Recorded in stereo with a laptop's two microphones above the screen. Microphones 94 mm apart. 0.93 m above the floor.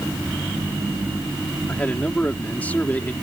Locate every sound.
1.7 s a man speaking: 20° left (ahead or behind)